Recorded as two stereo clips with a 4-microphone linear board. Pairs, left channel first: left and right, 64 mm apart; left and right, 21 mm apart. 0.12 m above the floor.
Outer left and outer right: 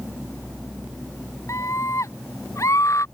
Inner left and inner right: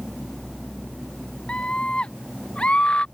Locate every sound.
1.5 s a scream: 55° left (ahead or behind)